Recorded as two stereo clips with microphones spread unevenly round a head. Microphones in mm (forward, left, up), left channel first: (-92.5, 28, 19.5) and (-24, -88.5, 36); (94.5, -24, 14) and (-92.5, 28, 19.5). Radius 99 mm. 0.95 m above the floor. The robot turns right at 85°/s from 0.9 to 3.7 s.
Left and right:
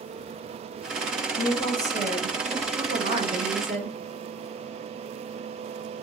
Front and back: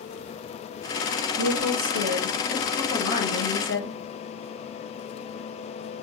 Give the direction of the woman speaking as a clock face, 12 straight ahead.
7 o'clock.